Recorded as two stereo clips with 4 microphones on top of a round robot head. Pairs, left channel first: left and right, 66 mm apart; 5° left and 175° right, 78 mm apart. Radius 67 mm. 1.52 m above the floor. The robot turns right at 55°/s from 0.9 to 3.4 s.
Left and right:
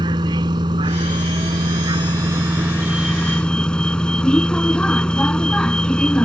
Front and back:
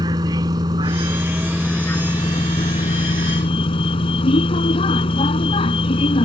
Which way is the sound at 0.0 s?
125° right.